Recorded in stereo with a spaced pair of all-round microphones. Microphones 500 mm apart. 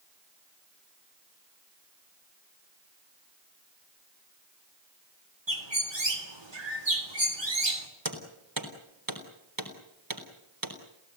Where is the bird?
65° right (ahead or behind), 3 m.